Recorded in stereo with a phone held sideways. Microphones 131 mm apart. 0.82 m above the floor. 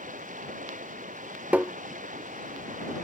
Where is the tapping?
10° right (ahead or behind).